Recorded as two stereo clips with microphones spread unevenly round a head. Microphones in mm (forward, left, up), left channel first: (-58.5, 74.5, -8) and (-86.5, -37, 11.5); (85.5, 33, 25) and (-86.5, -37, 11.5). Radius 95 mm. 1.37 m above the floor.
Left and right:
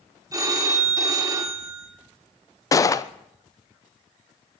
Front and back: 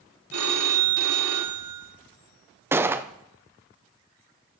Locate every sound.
0.3 s a phone ringing: 160° right, 2.5 m
2.7 s a gunshot: 125° left, 0.7 m